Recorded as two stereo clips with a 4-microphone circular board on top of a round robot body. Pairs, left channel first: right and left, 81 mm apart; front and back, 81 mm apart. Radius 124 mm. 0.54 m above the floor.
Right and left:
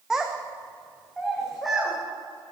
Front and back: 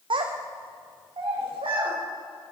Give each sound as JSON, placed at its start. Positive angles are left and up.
{"t": 0.1, "sound": "a child speaking", "azimuth_deg": 175, "distance_m": 0.6}